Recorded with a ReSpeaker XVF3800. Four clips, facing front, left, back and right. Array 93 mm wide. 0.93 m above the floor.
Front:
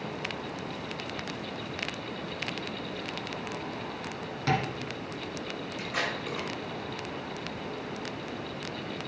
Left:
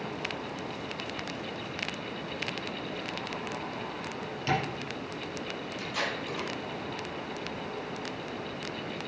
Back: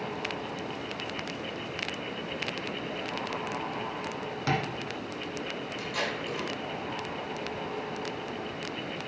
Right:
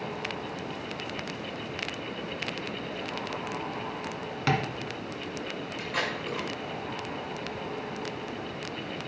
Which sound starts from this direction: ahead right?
Tape being pulled, at 5.8 s.